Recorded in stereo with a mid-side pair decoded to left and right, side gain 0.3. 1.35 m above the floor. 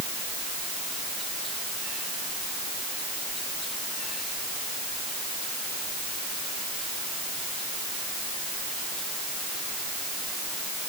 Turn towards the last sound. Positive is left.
No sound to turn to.